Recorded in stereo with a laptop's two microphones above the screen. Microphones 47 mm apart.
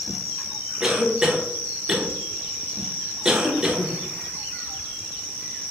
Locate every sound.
0.8 s a cough: 10° right (ahead or behind), 0.6 m